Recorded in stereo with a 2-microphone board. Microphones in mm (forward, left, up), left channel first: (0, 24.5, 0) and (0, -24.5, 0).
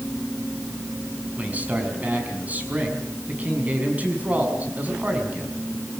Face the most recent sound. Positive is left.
turn(degrees=-30)  # may be behind; listen again after turning